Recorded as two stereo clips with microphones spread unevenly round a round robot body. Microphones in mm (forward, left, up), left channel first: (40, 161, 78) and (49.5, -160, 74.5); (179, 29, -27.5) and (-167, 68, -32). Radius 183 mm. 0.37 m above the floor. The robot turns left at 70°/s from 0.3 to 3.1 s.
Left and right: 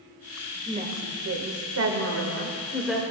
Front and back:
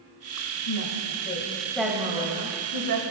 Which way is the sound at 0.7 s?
20° right.